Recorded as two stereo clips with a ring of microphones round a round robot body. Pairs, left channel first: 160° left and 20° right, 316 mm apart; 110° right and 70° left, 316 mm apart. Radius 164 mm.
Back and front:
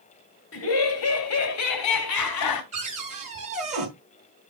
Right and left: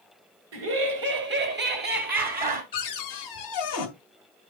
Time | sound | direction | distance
0.5 | laughter | 110° left | 2.5 m
2.7 | a cupboard door | 90° right | 3 m